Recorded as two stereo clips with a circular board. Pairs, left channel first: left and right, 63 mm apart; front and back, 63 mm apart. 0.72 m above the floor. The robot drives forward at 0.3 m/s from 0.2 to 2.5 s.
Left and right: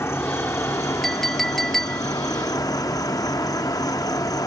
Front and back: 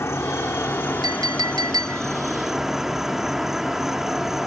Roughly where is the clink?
Behind.